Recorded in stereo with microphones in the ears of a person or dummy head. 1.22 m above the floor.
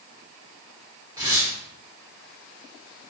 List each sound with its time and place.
1.2 s tearing paper: 15° right (ahead or behind), 0.8 m